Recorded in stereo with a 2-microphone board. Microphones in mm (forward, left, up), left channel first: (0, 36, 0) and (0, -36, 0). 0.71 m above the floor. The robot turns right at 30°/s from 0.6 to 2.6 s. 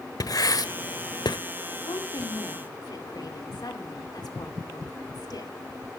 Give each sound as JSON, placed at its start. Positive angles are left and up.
{"t": 0.2, "sound": "writing", "side_deg": 60, "distance_m": 1.1}
{"t": 1.7, "sound": "a woman speaking", "side_deg": 55, "distance_m": 2.5}